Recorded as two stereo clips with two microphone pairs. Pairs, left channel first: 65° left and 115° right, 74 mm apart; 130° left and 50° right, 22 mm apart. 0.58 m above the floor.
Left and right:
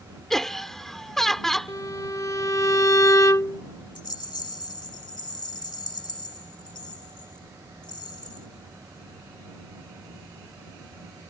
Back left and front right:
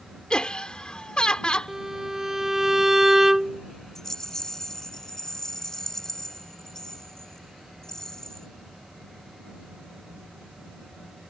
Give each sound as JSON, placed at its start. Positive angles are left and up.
{"t": 0.3, "sound": "laughter", "azimuth_deg": 145}
{"t": 1.7, "sound": "a violin", "azimuth_deg": 20}
{"t": 4.0, "sound": "a rattle", "azimuth_deg": 70}